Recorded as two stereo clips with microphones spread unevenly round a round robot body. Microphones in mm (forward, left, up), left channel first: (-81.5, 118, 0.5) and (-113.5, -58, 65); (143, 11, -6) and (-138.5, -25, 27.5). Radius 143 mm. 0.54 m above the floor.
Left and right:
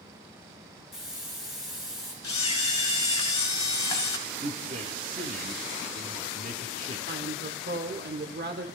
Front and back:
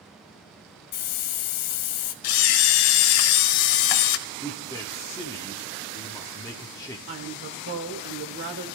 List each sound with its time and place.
0.9 s a hiss: 15° right, 1.0 m
2.2 s a camera shutter: straight ahead, 0.8 m
4.4 s a man speaking: 50° right, 1.3 m
7.1 s a woman speaking: 130° right, 2 m